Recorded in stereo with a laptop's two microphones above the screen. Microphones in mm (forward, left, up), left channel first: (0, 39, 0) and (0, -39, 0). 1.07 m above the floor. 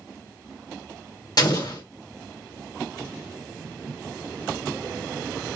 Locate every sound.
1.4 s an explosion: 60° left (ahead or behind), 1.4 m